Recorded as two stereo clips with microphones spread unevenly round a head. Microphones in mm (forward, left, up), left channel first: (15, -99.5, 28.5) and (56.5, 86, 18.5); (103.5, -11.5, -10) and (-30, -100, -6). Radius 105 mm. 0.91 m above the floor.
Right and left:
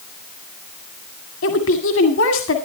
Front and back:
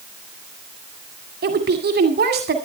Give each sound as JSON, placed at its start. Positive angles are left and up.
{"t": 1.4, "sound": "a woman speaking", "azimuth_deg": -130, "distance_m": 2.0}